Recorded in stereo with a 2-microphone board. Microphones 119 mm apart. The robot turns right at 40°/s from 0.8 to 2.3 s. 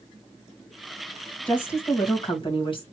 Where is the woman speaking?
15° left, 2 m; by 2.8 s 45° left, 2 m.